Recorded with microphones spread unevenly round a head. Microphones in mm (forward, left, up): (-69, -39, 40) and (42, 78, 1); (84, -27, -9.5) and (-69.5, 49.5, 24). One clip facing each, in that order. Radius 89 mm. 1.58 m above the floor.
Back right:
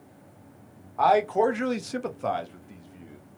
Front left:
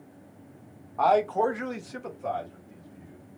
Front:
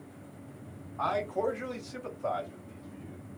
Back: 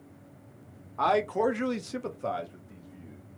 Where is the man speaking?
135° left, 0.9 m; by 3.2 s 125° right, 1.3 m.